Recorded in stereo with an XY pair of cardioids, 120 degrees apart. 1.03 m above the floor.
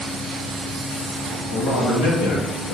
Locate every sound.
1.5 s a man speaking: 70° left, 1.6 m